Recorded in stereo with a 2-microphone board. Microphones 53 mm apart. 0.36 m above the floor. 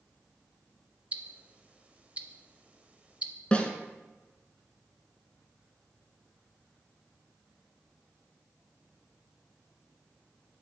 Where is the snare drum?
20° left (ahead or behind), 0.8 m.